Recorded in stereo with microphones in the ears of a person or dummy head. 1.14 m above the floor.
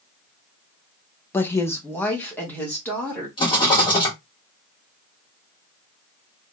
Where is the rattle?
25° left (ahead or behind), 1.7 m.